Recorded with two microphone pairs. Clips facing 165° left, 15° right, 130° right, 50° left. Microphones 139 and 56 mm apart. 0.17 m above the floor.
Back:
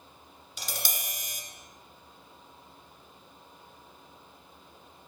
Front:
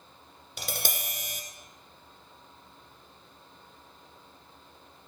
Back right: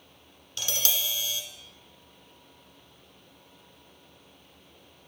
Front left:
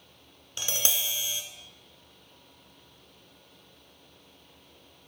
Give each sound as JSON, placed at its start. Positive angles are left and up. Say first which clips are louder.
{"t": 0.6, "sound": "tapping", "louder": "front 3 dB, back right 1 dB", "azimuth_deg": -15, "distance_m": 1.4}